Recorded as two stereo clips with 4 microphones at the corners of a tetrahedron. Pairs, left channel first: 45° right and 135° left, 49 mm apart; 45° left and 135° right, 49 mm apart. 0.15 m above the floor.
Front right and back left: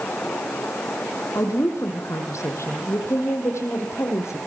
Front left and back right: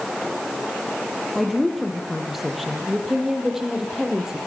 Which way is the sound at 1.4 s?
45° right.